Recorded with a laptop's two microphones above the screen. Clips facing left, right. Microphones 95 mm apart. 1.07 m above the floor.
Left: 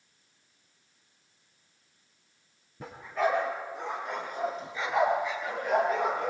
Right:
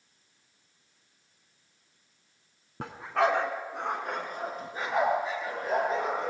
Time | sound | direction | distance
2.8 | a dog barking | 70° right (ahead or behind) | 2.5 m